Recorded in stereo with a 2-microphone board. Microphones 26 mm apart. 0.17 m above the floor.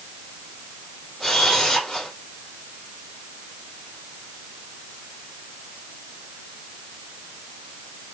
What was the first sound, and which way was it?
A camera shutter, 15° left (ahead or behind).